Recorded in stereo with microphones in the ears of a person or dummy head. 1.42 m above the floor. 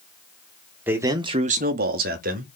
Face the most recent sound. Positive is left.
turn(degrees=-45)  # may be behind; listen again after turning